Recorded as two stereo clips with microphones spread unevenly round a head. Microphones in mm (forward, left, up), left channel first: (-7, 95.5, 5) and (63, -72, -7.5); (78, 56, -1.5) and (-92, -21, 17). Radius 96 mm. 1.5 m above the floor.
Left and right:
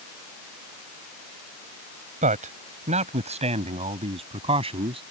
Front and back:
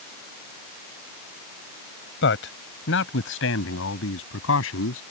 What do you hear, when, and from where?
2.2 s a man speaking: 15° right; by 5.0 s 5° right